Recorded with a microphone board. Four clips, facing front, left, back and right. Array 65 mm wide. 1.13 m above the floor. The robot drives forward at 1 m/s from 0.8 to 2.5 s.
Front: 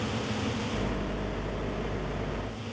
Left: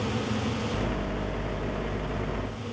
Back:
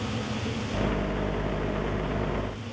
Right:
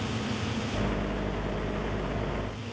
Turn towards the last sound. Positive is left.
No sound to turn to.